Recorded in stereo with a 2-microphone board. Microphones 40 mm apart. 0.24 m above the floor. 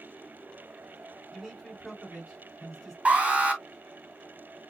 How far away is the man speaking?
About 3 m.